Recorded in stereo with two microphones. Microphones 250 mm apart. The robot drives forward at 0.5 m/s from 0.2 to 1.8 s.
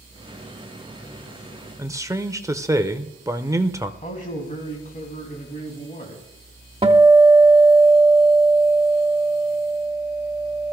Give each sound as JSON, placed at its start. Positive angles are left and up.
{"t": 1.8, "sound": "a man speaking", "side_deg": -10, "distance_m": 0.8}
{"t": 4.0, "sound": "a man speaking", "side_deg": 35, "distance_m": 3.0}
{"t": 6.8, "sound": "a guitar", "side_deg": -20, "distance_m": 1.1}